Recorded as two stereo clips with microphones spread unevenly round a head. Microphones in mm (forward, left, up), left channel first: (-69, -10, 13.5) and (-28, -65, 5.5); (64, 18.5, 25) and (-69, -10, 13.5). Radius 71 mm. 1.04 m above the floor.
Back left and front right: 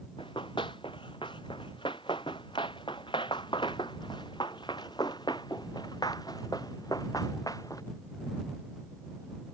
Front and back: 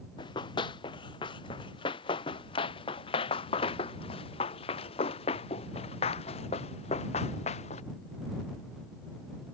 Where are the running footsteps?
70° left; by 7.8 s 60° left.